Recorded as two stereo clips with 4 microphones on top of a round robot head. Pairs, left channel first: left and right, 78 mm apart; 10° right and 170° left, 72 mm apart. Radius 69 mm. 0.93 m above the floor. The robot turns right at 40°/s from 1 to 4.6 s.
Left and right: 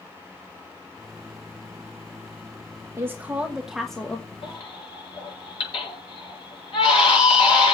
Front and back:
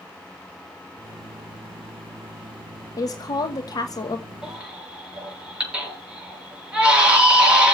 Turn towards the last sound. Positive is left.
turn(degrees=95)